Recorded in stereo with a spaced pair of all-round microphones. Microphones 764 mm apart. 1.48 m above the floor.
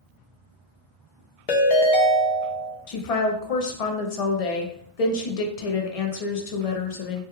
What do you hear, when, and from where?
1.5 s a ringtone: 55° left (ahead or behind), 0.5 m
2.9 s a woman speaking: 55° left (ahead or behind), 0.6 m